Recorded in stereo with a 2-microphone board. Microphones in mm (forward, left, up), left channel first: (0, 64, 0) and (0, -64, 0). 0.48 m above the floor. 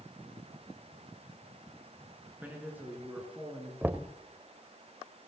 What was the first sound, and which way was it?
A man speaking, 15° right (ahead or behind).